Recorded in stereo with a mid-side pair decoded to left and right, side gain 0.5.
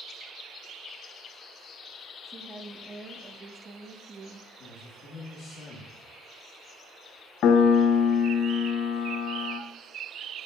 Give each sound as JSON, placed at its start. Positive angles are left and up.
{"t": 2.2, "sound": "a woman speaking", "azimuth_deg": -25, "distance_m": 1.3}
{"t": 4.6, "sound": "a man speaking", "azimuth_deg": 65, "distance_m": 1.6}
{"t": 7.4, "sound": "a piano", "azimuth_deg": 65, "distance_m": 0.8}